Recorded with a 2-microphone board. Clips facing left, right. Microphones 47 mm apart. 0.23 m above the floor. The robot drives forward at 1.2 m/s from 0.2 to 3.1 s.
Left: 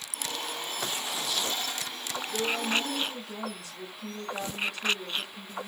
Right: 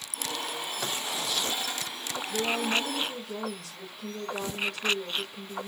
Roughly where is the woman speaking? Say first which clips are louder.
Right 1 dB; centre.